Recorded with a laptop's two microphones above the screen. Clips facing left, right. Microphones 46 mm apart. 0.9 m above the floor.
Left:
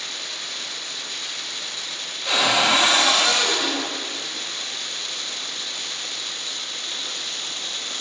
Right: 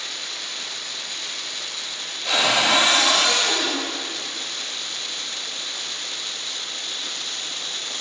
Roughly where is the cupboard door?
Centre.